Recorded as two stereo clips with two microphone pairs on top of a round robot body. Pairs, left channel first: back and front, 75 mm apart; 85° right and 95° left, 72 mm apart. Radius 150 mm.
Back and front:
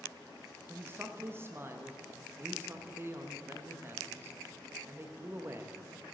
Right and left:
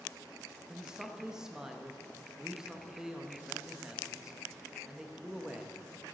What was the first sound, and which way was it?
A man speaking, 15° left.